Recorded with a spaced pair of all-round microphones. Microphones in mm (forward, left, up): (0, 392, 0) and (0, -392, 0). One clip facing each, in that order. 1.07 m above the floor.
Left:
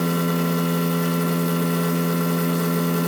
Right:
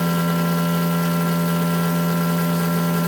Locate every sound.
0.0 s a machine running: 25° right (ahead or behind), 1.5 m